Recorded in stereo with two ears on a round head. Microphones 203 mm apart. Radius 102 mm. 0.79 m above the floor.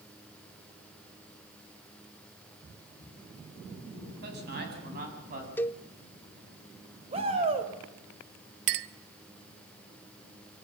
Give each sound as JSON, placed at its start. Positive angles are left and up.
{"t": 4.2, "sound": "a man speaking", "side_deg": -50, "distance_m": 7.0}
{"t": 5.6, "sound": "a cowbell", "side_deg": 10, "distance_m": 0.6}
{"t": 7.1, "sound": "a shout", "side_deg": -25, "distance_m": 4.5}
{"t": 8.7, "sound": "a clink", "side_deg": -50, "distance_m": 0.9}